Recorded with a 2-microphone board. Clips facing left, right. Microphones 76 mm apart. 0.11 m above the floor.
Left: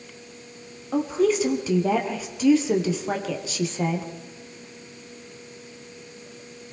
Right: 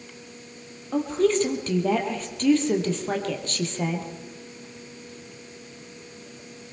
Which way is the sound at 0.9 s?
5° left (ahead or behind).